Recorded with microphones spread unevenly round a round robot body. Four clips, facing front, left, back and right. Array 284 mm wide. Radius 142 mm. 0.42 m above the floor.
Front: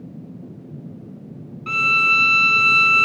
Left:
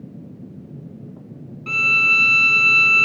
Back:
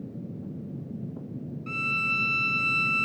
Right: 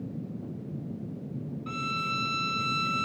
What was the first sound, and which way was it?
A violin, 40° left.